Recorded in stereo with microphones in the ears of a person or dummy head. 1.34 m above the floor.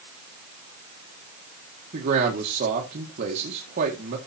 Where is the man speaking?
45° right (ahead or behind), 1.7 m.